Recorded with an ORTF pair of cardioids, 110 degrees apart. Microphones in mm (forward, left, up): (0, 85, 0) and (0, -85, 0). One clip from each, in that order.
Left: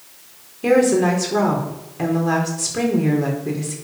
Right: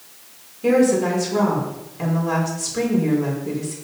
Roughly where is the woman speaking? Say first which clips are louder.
Left 2 dB; ahead left.